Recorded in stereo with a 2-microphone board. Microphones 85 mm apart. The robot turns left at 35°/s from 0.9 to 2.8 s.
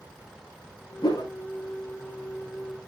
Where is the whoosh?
55° left (ahead or behind), 1.2 m; by 1.3 s 50° left (ahead or behind), 1.2 m.